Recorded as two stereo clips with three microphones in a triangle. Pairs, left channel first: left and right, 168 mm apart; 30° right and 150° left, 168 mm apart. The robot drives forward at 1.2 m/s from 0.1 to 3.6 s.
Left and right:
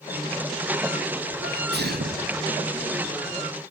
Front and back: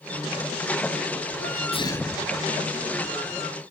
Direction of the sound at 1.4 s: 60° right.